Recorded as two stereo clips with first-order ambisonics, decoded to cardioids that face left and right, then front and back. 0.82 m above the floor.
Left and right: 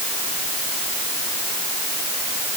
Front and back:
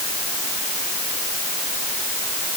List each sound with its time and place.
Only background noise.